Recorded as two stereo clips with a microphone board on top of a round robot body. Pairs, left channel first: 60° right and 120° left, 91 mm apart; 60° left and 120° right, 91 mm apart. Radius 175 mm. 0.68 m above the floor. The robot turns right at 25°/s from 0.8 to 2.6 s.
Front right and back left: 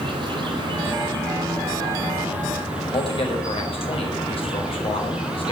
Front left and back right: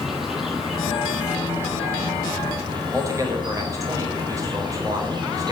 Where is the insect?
155° left, 3.5 m; by 5.5 s 160° right, 3.5 m.